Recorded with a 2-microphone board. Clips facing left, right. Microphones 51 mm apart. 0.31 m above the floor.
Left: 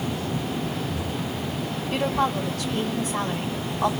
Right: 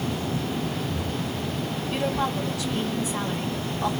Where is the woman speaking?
60° left (ahead or behind), 2.5 m.